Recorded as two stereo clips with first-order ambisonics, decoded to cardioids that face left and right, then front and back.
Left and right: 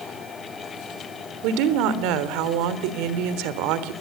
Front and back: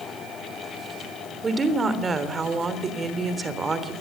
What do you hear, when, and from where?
1.4 s a woman speaking: 105° right, 3.5 m